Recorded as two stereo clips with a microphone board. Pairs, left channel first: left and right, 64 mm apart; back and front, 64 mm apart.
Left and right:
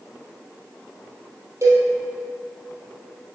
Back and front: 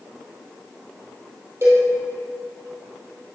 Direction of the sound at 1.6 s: 50° right.